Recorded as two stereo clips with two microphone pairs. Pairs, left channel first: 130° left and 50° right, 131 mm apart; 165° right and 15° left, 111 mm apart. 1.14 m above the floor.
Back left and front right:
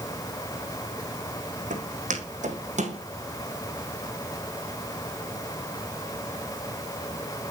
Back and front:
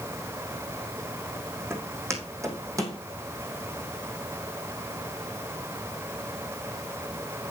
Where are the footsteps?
50° right, 3.5 m; by 3.0 s 35° right, 2.5 m.